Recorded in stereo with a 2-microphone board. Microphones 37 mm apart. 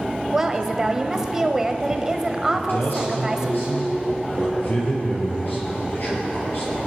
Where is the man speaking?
65° left (ahead or behind), 5.5 m.